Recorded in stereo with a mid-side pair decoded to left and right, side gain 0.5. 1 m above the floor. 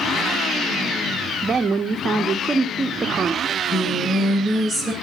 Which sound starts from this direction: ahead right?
A woman speaking, at 1.4 s.